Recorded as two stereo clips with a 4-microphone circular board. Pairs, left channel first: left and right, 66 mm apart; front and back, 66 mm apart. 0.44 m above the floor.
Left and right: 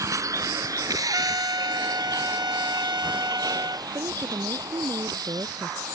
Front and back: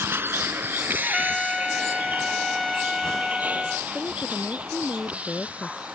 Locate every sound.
0.0 s a vehicle: 125° right; by 6.0 s 110° right
1.0 s a trumpet: 85° right
3.9 s a woman speaking: 65° right